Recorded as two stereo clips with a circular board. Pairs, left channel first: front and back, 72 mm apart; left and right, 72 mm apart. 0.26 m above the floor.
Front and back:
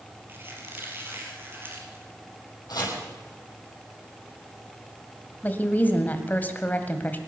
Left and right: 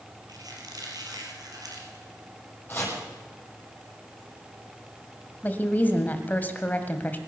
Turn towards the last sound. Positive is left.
turn(degrees=45)